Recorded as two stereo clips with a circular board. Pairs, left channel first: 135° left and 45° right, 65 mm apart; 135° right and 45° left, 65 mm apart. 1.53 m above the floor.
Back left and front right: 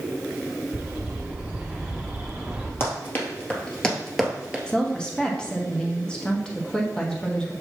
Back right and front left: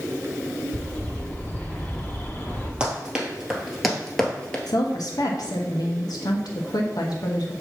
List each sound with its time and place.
0.7 s a bird: 100° right, 1.1 m
2.8 s running footsteps: 110° left, 1.9 m; by 4.6 s 90° right, 1.5 m
4.7 s a woman speaking: 150° right, 1.4 m